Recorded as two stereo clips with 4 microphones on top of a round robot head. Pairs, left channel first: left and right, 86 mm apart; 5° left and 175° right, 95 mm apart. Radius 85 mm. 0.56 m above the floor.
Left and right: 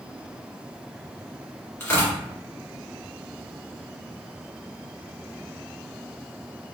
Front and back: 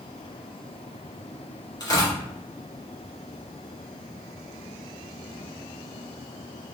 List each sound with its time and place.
1.8 s tearing paper: 40° left, 1.7 m